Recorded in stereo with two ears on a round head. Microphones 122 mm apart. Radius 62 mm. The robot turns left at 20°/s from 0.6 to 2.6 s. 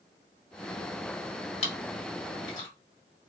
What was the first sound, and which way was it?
Chewing, 45° left (ahead or behind).